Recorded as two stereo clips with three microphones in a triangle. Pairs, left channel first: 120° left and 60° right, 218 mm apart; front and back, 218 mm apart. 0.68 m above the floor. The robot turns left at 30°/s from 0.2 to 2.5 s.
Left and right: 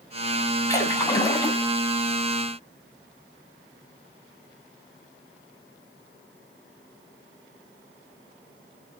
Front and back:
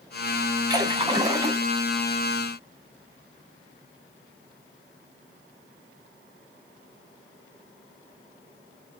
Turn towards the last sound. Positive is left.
turn(degrees=110)